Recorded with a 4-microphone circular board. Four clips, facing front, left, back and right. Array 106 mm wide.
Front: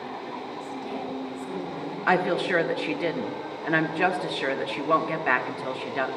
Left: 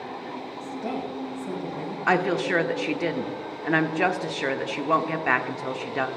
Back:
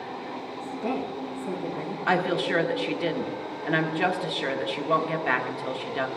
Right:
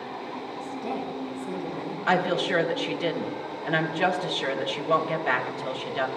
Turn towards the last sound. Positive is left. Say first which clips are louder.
# left 1 dB, front 2 dB
turn(degrees=60)